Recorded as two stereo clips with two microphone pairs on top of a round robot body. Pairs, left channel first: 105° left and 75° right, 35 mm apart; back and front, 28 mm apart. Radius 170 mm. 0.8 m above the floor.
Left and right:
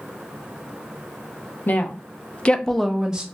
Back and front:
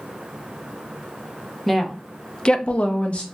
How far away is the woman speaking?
About 0.9 m.